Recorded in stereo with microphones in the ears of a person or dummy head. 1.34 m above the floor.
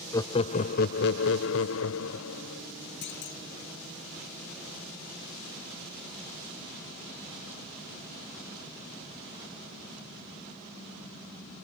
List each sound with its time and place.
0.1 s laughter: 20° left (ahead or behind); by 2.6 s 75° left (ahead or behind)
3.0 s a clunk: 60° left (ahead or behind)